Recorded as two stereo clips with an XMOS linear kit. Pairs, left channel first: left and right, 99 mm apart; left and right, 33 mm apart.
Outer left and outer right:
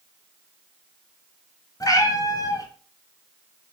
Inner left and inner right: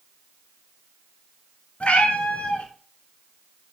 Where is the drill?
No drill in this recording.